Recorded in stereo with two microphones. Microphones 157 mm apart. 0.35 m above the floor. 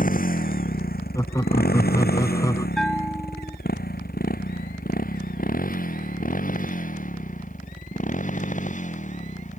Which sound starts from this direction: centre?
A bell, at 2.8 s.